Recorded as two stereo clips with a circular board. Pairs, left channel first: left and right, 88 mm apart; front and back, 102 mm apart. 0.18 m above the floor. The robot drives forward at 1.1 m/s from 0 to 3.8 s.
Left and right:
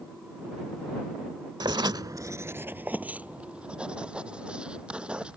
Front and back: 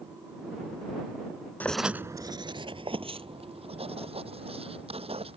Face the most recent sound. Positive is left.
turn(degrees=-165)